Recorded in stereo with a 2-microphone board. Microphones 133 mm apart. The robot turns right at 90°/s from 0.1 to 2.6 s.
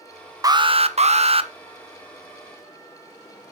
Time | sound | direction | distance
0.4 | an alarm | 145° right | 0.6 m